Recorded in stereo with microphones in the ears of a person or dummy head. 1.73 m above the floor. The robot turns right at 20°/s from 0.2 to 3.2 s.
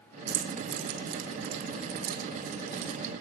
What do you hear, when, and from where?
0.3 s keys jangling: 60° right (ahead or behind), 1.6 m; by 3.1 s 45° right (ahead or behind), 1.6 m